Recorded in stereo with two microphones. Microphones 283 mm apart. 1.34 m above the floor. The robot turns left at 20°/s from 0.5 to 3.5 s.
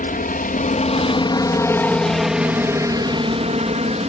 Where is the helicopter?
35° left; by 4.1 s 25° right.